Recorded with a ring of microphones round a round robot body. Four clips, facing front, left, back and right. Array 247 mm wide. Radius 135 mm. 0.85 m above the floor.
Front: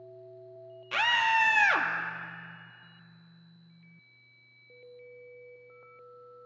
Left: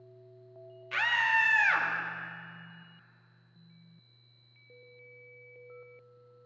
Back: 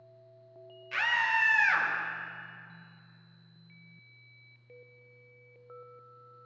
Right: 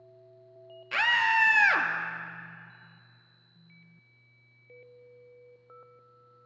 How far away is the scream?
About 1.3 m.